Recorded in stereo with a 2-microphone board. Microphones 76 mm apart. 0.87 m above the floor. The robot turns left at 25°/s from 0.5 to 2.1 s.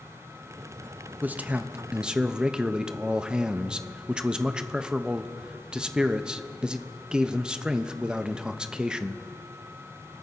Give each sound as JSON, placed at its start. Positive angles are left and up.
{"t": 1.2, "sound": "a man speaking", "side_deg": -25, "distance_m": 0.6}